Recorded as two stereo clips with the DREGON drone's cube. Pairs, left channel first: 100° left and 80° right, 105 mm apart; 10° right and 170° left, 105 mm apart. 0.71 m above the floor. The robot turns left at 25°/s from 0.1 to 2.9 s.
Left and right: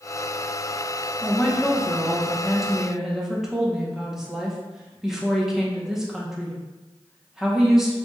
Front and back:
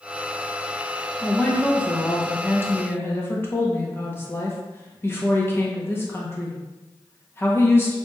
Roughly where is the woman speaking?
Ahead left.